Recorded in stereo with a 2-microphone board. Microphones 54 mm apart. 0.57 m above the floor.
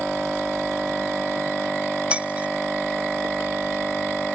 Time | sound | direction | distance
2.1 | breaking glass | 20° right (ahead or behind) | ?